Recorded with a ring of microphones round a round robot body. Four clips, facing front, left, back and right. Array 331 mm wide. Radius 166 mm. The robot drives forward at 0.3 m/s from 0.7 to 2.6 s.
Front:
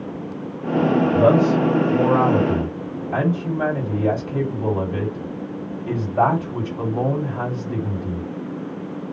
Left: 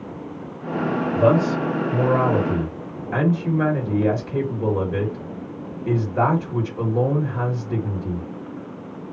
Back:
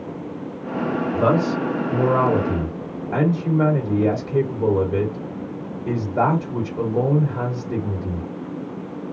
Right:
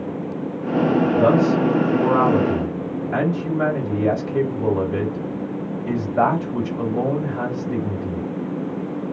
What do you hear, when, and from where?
1.1 s a man speaking: 150° left, 1.8 m; by 8.3 s 155° left, 2 m